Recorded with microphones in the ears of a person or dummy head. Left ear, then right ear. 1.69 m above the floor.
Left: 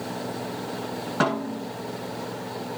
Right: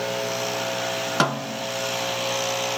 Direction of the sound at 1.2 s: 80° right.